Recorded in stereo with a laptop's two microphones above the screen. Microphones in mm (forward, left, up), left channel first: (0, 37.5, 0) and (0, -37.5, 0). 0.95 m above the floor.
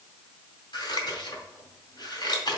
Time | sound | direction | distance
0.7 | scissors | 80° left | 2 m